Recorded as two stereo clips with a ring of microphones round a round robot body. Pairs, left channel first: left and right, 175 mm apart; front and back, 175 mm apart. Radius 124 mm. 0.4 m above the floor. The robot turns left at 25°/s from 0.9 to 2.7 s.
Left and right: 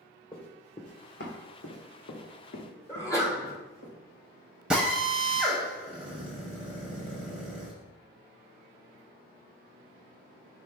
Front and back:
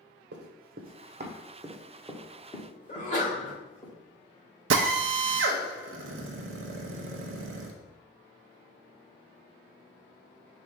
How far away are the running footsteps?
About 1.1 m.